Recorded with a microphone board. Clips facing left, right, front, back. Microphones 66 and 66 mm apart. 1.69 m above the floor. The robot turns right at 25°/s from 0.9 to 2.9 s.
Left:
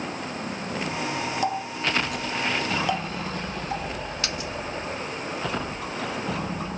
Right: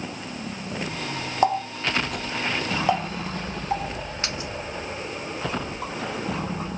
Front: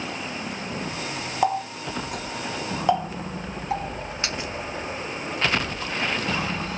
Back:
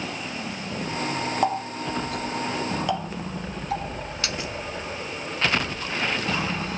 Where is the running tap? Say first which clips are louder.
Right 8 dB, front 4 dB; 85° right, 1.0 m; by 6.7 s 50° right, 1.0 m.